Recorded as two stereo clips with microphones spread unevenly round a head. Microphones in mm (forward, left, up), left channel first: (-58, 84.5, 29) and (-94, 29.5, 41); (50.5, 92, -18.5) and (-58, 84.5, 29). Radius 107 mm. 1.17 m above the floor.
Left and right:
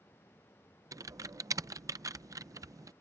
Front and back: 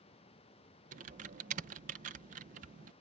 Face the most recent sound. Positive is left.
turn(degrees=-160)